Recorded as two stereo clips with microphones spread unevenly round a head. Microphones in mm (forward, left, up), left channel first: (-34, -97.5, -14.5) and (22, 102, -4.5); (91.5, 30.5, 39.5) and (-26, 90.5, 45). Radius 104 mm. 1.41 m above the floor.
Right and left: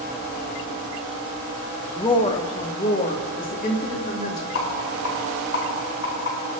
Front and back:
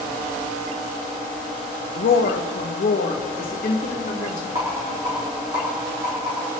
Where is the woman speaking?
30° right, 1.0 m; by 4.5 s 60° right, 3 m.